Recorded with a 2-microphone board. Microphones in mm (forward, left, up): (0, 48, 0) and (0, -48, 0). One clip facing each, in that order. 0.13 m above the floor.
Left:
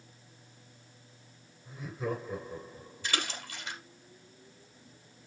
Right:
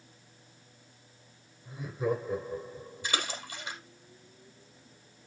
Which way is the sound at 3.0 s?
15° right (ahead or behind).